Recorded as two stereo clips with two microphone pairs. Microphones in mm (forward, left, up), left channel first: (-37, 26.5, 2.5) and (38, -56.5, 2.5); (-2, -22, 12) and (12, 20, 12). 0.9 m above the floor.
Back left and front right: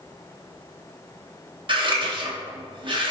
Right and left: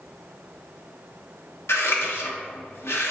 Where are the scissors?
90° right, 0.9 m.